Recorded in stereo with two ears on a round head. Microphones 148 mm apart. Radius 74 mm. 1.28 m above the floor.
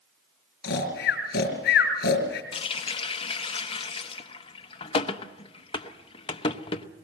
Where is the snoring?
65° left (ahead or behind), 4 m.